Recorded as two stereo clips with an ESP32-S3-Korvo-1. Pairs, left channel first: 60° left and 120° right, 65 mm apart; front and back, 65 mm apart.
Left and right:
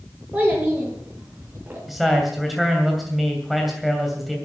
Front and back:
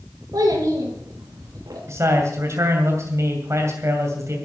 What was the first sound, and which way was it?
A child speaking, 170° left.